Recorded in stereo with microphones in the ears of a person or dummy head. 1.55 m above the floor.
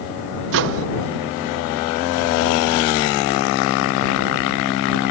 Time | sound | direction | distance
0.5 | a microwave | 65° right (ahead or behind) | ?